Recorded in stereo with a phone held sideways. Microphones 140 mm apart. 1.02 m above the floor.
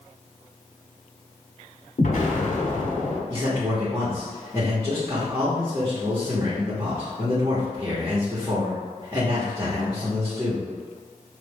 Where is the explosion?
65° left (ahead or behind), 1.3 m.